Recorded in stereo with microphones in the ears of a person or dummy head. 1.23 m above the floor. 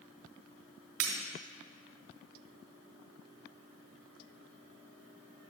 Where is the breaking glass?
50° right (ahead or behind), 1.2 m.